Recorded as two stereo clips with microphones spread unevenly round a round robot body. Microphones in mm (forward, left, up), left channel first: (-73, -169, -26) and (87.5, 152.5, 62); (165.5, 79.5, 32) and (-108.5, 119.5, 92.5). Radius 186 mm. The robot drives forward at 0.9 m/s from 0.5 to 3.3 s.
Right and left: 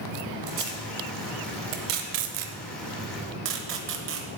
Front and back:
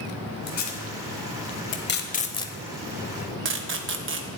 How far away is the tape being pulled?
About 2 m.